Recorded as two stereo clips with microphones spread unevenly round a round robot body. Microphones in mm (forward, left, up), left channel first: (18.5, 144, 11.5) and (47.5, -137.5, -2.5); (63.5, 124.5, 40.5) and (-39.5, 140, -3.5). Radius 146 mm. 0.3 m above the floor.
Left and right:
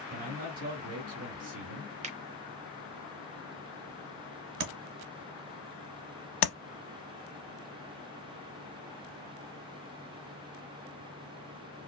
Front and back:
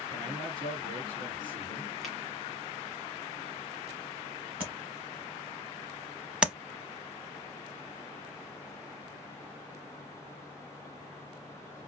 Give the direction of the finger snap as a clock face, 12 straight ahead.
4 o'clock.